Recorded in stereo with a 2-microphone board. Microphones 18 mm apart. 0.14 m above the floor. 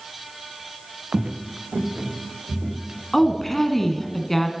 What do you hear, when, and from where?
1.1 s footsteps: 85° right, 0.9 m; by 4.1 s 50° right (ahead or behind), 4 m
3.1 s a woman speaking: 15° left (ahead or behind), 1.2 m